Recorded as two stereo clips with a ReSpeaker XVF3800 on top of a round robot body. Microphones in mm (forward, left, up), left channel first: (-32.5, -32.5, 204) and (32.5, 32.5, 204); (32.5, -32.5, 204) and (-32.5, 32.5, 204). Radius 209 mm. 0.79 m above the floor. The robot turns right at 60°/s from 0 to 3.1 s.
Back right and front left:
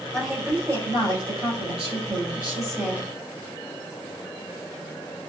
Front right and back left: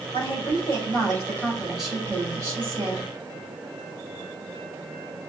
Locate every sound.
0.1 s a woman speaking: 50° right, 4.5 m; by 3.1 s 125° left, 4.5 m